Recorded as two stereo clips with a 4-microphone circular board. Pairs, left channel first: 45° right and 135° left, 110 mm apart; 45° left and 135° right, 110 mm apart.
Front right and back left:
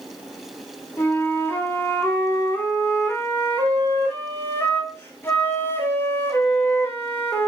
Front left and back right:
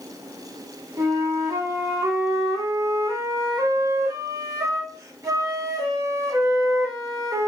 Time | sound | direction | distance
1.0 | a flute | 100° right | 0.6 m